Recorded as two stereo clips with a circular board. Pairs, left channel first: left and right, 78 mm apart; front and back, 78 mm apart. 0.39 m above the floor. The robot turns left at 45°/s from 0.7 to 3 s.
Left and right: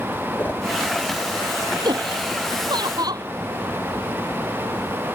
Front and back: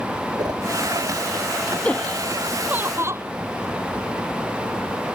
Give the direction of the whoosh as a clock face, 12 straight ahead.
7 o'clock.